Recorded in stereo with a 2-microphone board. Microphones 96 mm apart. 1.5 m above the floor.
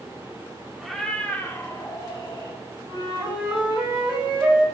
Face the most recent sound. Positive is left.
turn(degrees=-15)  # may be behind; listen again after turning